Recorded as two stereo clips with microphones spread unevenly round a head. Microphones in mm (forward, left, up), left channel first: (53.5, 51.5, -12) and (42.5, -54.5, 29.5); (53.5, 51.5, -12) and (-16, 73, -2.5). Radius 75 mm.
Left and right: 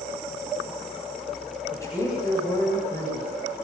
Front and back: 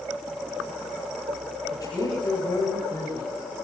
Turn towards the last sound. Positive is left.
turn(degrees=20)